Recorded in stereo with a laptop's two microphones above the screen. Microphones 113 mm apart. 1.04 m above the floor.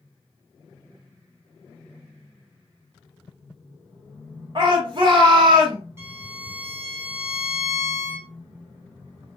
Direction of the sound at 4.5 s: 45° right (ahead or behind).